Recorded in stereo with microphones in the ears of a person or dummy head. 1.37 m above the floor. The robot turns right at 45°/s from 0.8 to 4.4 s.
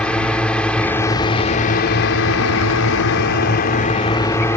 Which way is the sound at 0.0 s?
5° left.